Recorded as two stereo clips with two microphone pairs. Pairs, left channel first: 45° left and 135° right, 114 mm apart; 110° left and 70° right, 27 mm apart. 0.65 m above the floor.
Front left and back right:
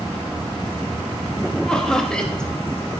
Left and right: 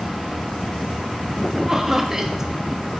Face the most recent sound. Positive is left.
turn(degrees=-35)